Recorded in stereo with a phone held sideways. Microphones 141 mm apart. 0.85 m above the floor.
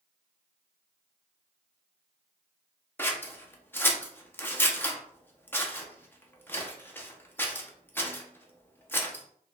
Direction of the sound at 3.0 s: 15° left (ahead or behind).